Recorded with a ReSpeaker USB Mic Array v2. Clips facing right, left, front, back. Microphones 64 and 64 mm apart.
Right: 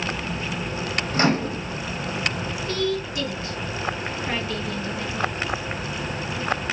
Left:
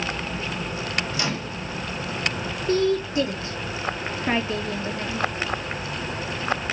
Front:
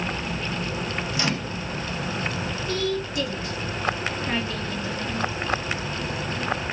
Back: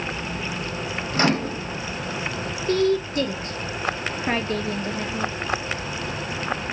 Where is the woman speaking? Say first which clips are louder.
Left 5 dB, back 8 dB; 145° left, 1.1 m.